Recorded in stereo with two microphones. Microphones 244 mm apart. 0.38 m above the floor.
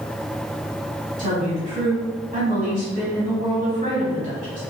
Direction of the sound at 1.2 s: 30° right (ahead or behind).